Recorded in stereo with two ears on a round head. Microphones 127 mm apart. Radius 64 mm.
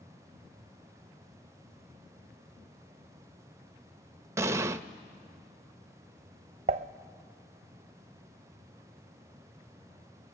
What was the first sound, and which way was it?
An explosion, 20° right (ahead or behind).